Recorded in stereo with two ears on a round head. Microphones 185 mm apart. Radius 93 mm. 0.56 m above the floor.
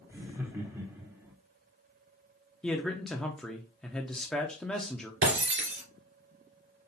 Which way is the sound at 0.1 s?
15° right (ahead or behind).